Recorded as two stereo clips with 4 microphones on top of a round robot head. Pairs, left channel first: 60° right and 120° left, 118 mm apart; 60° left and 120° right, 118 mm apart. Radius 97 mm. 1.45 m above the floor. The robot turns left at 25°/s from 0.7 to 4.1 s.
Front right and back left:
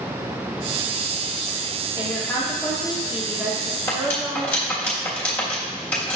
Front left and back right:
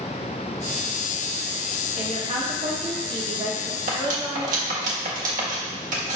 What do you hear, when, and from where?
2.0 s a woman speaking: 125° right, 1.2 m; by 4.9 s straight behind, 1.2 m
3.9 s cutlery clinking: 130° right, 1.5 m; by 6.2 s 135° right, 1.5 m